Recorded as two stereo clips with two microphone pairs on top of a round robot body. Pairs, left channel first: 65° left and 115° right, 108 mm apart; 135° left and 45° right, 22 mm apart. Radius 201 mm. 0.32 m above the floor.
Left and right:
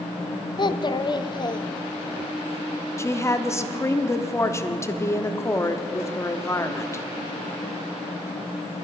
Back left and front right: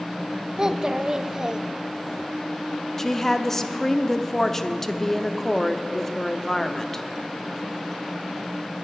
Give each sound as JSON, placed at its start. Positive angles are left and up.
{"t": 0.6, "sound": "a child speaking", "azimuth_deg": 25, "distance_m": 0.7}
{"t": 3.0, "sound": "a woman speaking", "azimuth_deg": 110, "distance_m": 1.0}